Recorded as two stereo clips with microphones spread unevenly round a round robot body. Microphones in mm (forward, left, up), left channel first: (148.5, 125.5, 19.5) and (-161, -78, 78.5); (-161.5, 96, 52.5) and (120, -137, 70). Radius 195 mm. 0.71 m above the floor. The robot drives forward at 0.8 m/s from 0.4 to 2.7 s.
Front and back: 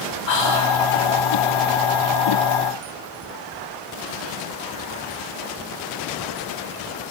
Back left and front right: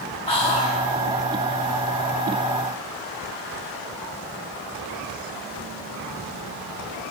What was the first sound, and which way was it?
Whispering, 65° left.